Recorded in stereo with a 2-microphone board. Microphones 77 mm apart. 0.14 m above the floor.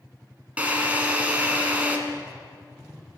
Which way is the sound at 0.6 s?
20° right (ahead or behind).